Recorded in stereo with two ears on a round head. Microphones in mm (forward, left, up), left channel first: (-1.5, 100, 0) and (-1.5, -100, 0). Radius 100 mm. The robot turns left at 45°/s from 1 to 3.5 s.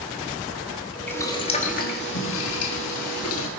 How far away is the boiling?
About 1.7 m.